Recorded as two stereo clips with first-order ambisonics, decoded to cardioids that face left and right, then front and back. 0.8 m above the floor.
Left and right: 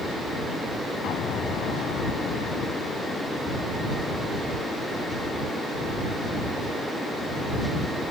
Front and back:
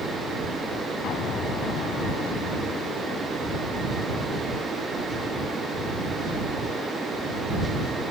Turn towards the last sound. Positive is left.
turn(degrees=45)